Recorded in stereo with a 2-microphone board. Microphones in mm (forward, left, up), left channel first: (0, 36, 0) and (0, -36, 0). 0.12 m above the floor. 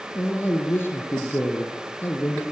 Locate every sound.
0.1 s a man speaking: 30° left (ahead or behind), 2.5 m